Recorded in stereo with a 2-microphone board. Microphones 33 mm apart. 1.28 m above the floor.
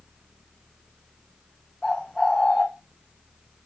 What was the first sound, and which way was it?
A bird, 10° left (ahead or behind).